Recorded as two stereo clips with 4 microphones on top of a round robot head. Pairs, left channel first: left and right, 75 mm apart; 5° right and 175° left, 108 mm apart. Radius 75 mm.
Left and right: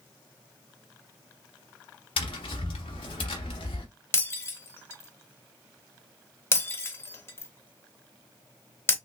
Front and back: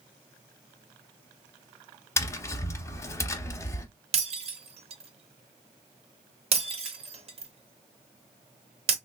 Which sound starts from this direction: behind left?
Breaking glass, at 4.1 s.